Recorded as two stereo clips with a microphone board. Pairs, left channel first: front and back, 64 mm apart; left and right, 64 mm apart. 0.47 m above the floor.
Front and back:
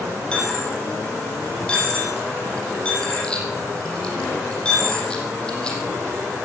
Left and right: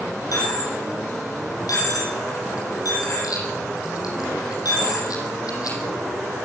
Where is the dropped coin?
75° left, 7.5 m.